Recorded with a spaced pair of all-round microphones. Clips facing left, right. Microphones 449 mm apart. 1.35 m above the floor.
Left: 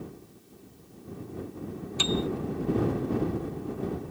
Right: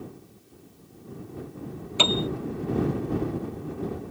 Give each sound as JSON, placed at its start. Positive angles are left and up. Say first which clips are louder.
{"t": 2.0, "sound": "a piano", "louder": "right 2 dB", "side_deg": -80}